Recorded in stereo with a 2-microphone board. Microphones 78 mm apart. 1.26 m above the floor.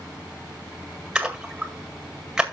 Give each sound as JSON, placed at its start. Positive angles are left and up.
{"t": 1.1, "sound": "a splash", "side_deg": -10, "distance_m": 1.8}